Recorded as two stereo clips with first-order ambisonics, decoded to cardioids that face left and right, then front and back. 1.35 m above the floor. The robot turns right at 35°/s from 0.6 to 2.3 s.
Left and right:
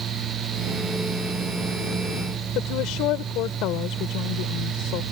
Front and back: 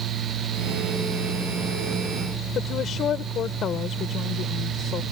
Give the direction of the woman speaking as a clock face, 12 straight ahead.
10 o'clock.